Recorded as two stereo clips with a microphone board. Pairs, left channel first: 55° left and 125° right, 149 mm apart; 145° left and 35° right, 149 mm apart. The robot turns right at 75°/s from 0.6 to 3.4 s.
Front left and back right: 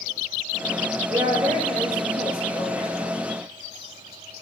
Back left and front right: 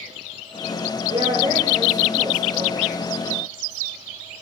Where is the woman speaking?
80° right, 3 m; by 3.2 s 75° left, 3 m.